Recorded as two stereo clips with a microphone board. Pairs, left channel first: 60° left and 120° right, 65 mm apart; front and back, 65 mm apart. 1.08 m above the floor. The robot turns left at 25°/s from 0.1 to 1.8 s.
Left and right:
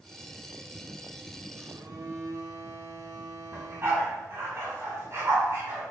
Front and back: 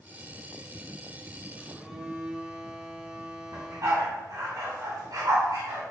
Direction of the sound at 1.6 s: 100° right.